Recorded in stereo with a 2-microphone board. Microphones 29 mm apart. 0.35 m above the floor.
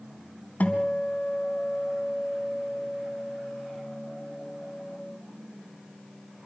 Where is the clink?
No clink in this recording.